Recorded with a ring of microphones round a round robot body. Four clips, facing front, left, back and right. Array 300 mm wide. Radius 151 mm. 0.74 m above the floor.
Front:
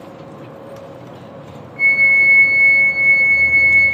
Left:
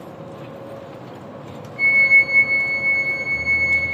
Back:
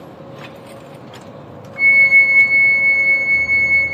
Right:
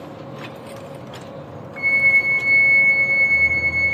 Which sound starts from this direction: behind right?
A flute, at 1.8 s.